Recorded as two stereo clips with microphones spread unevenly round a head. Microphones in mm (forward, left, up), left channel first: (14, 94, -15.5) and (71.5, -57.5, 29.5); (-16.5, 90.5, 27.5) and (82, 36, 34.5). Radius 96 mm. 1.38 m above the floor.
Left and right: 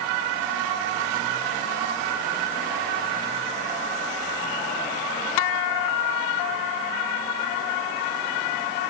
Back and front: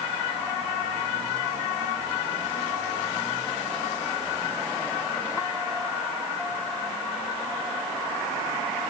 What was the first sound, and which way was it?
Only background noise.